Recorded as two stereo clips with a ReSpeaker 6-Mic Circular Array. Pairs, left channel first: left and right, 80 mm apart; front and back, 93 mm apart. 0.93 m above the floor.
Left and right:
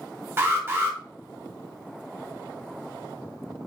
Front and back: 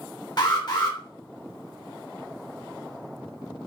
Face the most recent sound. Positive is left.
turn(degrees=-30)